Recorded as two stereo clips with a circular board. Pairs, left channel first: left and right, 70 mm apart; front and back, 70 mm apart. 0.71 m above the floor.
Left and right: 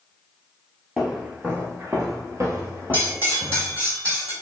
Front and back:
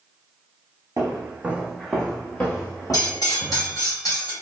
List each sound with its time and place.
1.0 s footsteps: 165° right, 0.9 m; by 3.8 s 45° right, 1.9 m
2.9 s cutlery clinking: 35° right, 1.9 m